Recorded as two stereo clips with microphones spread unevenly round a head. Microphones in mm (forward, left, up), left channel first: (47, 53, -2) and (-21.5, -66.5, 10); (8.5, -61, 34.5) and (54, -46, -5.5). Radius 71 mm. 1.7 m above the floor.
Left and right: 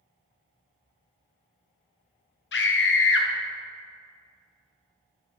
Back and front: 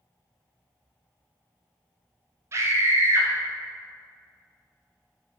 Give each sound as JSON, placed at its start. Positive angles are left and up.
{"t": 2.5, "sound": "a scream", "azimuth_deg": 70, "distance_m": 0.9}